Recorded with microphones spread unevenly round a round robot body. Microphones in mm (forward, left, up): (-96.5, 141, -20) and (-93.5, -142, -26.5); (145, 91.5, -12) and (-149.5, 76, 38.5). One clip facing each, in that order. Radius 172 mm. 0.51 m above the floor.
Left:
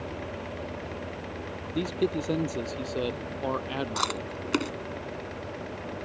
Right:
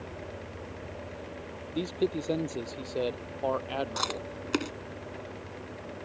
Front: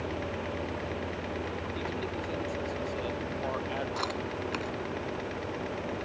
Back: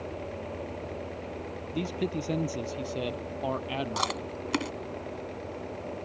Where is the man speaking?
165° left; by 4.3 s 150° left.